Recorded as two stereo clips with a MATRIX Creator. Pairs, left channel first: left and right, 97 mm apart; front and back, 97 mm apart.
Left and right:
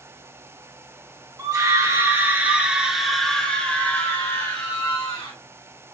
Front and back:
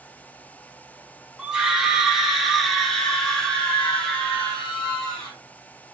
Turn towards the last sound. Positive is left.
turn(degrees=70)